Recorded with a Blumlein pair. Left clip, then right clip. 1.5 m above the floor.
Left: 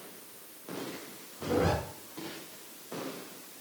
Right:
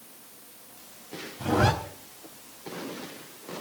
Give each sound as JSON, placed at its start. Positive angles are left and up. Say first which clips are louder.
{"t": 1.4, "sound": "a zipper", "louder": "right 5 dB", "azimuth_deg": -35, "distance_m": 4.0}